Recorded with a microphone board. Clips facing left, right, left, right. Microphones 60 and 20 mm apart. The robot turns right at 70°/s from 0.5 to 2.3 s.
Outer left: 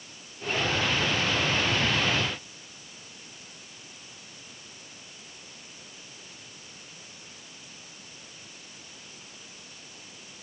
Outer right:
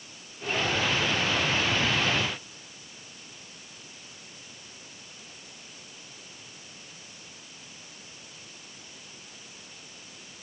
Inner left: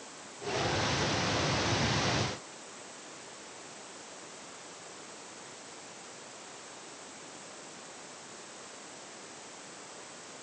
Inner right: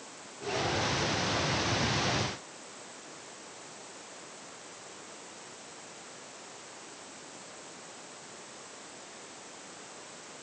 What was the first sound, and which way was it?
Only background noise.